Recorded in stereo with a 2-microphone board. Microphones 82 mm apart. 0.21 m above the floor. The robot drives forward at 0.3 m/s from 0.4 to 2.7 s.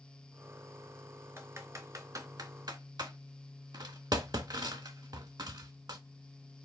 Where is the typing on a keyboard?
35° right (ahead or behind), 0.7 m; by 6.0 s 60° right (ahead or behind), 0.5 m.